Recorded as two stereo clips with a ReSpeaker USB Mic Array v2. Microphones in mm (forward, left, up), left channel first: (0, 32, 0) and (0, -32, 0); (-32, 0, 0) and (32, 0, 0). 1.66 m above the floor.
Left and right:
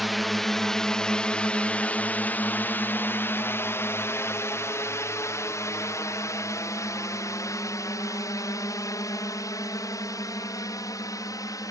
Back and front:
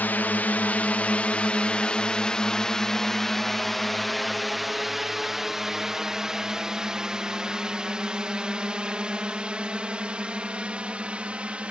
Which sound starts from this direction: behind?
A drone, at 0.0 s.